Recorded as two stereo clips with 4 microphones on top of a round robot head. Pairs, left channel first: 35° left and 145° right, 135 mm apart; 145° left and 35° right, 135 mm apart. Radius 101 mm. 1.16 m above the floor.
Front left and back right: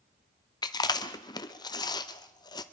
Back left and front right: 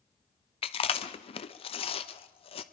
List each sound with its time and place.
0.6 s chewing: 95° left, 0.8 m